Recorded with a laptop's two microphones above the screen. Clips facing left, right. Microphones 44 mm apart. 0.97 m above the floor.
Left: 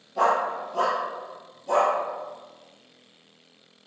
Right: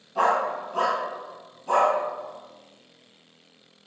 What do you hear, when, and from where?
0.1 s a dog barking: 50° right (ahead or behind), 1.4 m